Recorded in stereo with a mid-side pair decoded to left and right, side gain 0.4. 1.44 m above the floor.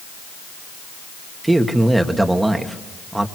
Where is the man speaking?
15° right, 2.5 m.